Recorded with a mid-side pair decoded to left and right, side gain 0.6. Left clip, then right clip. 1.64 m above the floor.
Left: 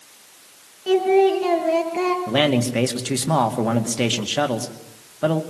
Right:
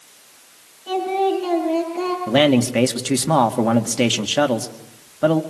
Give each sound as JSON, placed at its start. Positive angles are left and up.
{"t": 0.9, "sound": "singing", "azimuth_deg": 50, "distance_m": 7.0}
{"t": 2.3, "sound": "a man speaking", "azimuth_deg": -20, "distance_m": 2.5}